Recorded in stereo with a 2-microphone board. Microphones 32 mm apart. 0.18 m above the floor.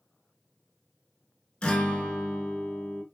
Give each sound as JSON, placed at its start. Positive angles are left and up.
{"t": 1.6, "sound": "a guitar", "side_deg": 30, "distance_m": 1.0}